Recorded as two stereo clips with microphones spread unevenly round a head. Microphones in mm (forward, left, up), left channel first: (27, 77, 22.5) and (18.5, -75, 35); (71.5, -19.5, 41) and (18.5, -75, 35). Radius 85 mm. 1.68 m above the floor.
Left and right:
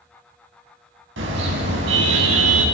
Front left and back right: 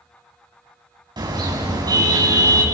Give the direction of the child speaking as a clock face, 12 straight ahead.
I don't hear a child speaking.